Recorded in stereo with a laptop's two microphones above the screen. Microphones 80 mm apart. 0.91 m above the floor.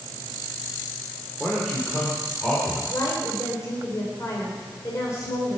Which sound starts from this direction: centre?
A man speaking, at 1.4 s.